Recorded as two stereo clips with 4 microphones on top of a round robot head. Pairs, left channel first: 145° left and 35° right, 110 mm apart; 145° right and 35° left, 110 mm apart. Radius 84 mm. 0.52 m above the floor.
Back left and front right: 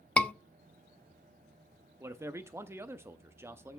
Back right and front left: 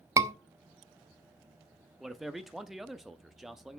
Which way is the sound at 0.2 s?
80° left.